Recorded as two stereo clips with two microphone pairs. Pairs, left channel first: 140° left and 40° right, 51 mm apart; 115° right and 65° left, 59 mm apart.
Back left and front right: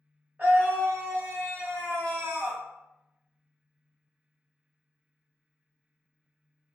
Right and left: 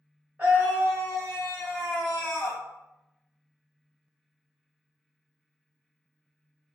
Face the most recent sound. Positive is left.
turn(degrees=-40)